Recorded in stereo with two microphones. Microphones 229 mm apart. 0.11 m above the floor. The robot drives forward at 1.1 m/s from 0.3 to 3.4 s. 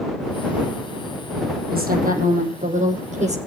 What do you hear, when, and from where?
1.7 s a woman speaking: 40° right (ahead or behind), 4.5 m; by 3.4 s 30° right (ahead or behind), 6 m